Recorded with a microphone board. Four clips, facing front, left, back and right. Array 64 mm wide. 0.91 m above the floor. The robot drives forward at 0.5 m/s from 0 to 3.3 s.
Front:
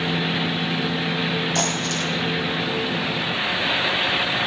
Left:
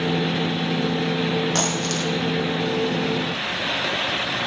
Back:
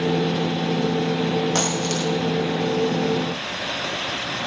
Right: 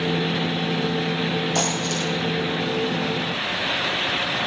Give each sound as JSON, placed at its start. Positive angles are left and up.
{"t": 1.6, "sound": "a dropped coin", "azimuth_deg": 140, "distance_m": 5.0}